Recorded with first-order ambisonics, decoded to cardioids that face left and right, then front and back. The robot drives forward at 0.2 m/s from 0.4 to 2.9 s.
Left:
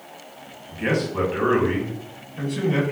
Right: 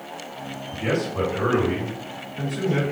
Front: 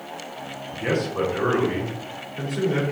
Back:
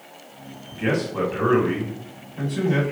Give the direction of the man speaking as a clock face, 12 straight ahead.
8 o'clock.